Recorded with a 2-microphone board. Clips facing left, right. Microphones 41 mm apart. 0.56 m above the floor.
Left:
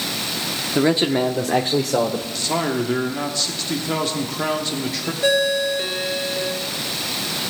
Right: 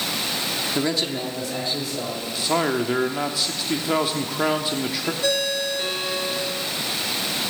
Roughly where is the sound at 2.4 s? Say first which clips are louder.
Right 2 dB; centre.